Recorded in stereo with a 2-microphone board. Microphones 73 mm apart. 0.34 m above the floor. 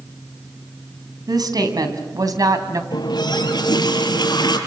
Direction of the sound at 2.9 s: 75° left (ahead or behind).